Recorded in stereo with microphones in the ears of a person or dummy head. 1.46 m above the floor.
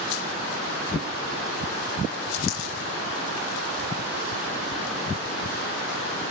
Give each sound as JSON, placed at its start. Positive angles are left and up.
{"t": 2.5, "sound": "a dropped coin", "side_deg": 80}